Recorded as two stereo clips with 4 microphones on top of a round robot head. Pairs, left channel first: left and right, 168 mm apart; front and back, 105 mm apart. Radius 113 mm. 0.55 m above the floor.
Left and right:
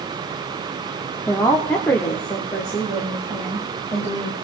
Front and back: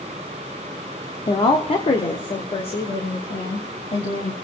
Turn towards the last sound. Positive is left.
turn(degrees=15)